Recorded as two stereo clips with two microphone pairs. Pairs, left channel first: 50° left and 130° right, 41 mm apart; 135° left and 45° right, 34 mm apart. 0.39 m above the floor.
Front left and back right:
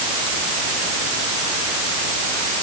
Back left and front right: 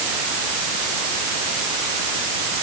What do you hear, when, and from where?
Only background noise.